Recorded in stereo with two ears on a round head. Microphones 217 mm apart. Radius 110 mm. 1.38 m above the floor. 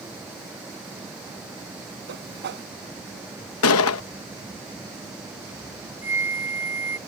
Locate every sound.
2.1 s a whoosh: 50° right (ahead or behind)
3.6 s a gunshot: 60° left (ahead or behind)
6.0 s a flute: 10° right (ahead or behind)